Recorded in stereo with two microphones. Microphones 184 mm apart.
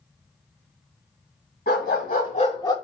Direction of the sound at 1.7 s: 65° left (ahead or behind).